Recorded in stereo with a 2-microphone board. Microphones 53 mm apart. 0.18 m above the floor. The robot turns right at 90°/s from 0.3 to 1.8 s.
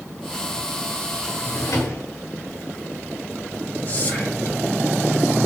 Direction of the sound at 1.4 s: 45° left.